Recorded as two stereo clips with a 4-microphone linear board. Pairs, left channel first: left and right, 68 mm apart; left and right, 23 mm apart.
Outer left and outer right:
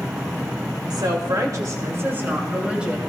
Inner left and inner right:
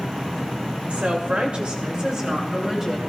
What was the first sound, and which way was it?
A woman speaking, 75° right (ahead or behind).